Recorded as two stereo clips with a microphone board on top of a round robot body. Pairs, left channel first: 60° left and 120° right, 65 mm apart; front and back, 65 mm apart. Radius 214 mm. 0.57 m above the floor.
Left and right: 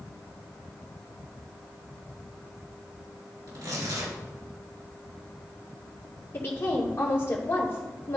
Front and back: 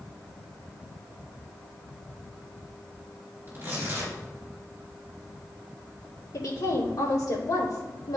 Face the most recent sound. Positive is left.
turn(degrees=10)